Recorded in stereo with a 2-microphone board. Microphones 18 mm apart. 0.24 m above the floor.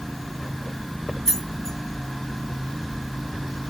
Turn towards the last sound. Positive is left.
turn(degrees=30)  # may be behind; listen again after turning